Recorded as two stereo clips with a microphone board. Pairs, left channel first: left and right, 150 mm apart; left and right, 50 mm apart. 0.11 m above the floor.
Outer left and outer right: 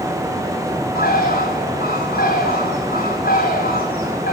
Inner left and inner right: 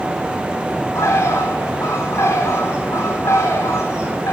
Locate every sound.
0.9 s a bird: 80° left, 4.5 m